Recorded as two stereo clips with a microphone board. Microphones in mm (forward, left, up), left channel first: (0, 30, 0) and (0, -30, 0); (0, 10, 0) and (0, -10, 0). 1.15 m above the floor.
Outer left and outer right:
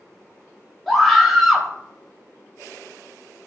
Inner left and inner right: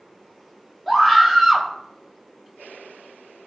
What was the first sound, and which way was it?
A scream, centre (ahead or behind).